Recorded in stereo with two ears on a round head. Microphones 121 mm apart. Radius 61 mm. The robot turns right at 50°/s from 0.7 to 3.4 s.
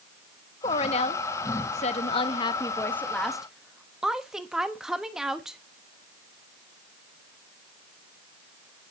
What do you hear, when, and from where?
0.6 s a woman speaking: 50° left, 1.0 m; by 5.6 s 175° right, 1.0 m